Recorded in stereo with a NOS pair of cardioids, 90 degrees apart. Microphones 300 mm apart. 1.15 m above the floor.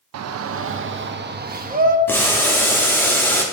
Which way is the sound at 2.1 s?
5° left.